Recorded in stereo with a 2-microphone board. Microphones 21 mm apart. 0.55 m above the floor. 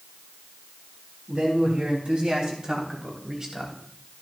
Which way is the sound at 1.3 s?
55° right (ahead or behind).